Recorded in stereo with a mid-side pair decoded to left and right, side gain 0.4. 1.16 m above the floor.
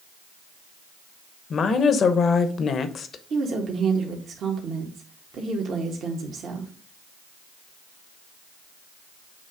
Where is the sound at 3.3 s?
65° right, 1.5 m.